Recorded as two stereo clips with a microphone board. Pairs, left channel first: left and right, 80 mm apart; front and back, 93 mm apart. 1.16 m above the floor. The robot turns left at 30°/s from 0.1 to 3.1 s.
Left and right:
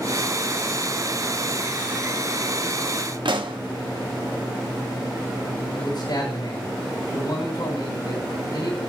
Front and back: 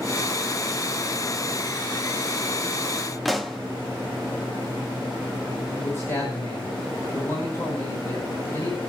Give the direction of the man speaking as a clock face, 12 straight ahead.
10 o'clock.